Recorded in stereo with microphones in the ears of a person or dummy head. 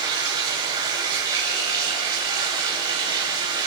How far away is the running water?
About 3 m.